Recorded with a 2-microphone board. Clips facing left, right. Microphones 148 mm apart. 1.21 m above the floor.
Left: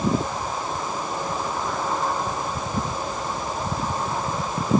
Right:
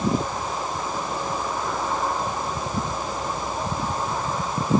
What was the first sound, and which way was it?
Only background noise.